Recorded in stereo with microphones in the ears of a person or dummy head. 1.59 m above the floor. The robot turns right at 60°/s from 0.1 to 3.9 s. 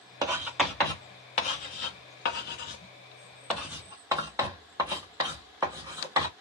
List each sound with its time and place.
0.2 s writing: 20° right (ahead or behind), 1.4 m; by 6.3 s 15° right (ahead or behind), 1.4 m